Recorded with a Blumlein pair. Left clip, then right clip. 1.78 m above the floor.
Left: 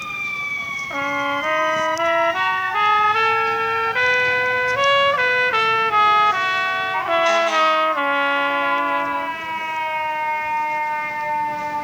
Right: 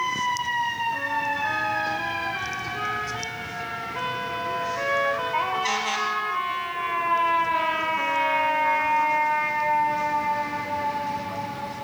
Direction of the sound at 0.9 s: 40° left.